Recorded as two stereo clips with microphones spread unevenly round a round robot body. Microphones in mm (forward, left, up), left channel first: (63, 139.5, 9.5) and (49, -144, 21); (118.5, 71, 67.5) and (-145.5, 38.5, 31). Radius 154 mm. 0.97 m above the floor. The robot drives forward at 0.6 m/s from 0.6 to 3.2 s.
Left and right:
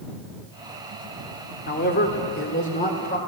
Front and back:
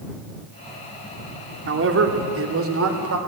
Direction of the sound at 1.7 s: 145° left.